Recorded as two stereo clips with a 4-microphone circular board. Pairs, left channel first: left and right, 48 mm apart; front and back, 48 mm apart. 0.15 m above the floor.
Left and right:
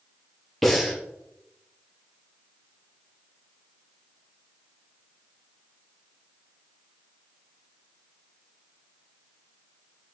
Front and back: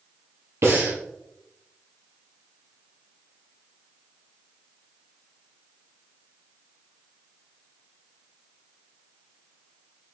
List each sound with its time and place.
0.6 s breathing: 175° left, 3 m